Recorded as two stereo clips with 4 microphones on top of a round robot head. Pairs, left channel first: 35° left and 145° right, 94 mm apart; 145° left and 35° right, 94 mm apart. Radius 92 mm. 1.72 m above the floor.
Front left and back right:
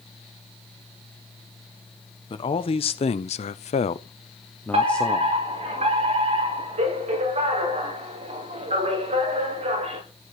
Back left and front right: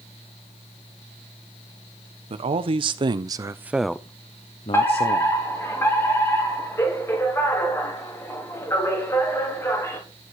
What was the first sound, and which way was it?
A man speaking, 5° right.